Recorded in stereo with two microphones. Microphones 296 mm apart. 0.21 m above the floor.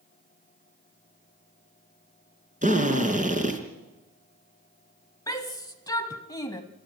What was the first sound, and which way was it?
A drill, 25° right (ahead or behind).